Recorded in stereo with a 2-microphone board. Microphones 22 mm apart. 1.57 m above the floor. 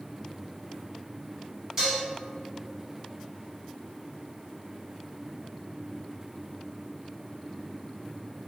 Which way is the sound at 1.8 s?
15° right (ahead or behind).